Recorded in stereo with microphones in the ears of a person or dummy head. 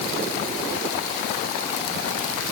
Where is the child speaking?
I don't hear a child speaking.